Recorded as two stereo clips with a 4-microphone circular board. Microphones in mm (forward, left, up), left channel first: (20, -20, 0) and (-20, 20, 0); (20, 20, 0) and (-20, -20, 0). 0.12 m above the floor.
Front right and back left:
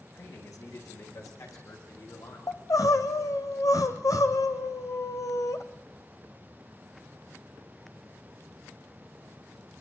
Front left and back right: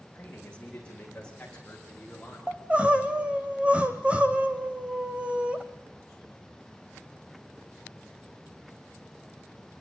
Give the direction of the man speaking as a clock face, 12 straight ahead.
1 o'clock.